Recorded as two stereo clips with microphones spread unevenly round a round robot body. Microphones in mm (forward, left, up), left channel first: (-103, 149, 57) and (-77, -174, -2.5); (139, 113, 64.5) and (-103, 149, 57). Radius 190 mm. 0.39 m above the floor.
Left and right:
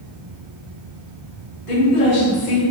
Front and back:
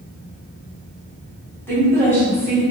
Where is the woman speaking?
65° left, 1.3 m.